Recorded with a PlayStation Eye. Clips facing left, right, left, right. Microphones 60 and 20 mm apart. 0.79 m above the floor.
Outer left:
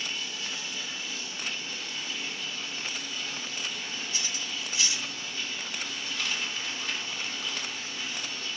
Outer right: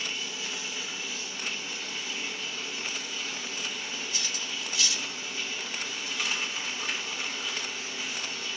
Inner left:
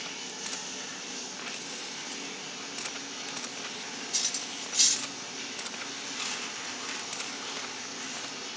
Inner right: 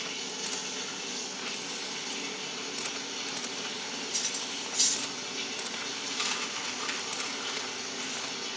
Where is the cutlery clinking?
30° left (ahead or behind), 1.5 m.